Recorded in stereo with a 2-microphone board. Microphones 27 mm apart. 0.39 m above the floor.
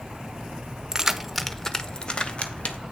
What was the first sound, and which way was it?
Keys jangling, 25° right (ahead or behind).